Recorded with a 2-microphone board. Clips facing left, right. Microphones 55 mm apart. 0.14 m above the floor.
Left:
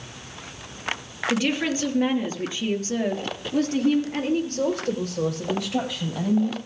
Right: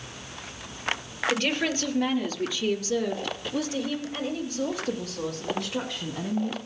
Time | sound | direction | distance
1.3 | a woman speaking | 5° left (ahead or behind) | 3 m